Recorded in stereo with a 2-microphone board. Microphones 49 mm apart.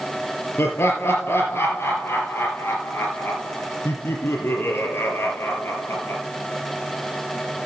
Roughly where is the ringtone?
I don't hear a ringtone.